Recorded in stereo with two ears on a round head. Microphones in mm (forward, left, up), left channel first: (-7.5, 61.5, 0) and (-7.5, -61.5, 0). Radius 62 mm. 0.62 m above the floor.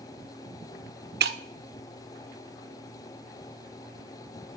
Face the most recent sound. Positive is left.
turn(degrees=-85)